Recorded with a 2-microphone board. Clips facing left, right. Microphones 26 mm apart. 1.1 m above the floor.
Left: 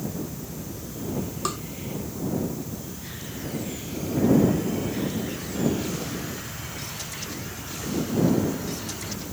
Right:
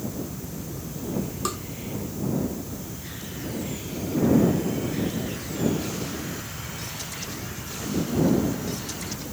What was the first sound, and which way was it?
Tapping, 5° left (ahead or behind).